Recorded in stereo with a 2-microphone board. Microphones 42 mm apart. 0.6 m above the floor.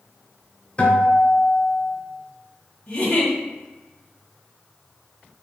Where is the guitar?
30° left (ahead or behind), 0.9 m.